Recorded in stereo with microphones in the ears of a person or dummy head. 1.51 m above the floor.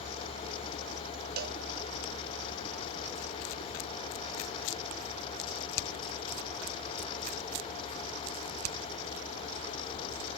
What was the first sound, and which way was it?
A cowbell, 50° right (ahead or behind).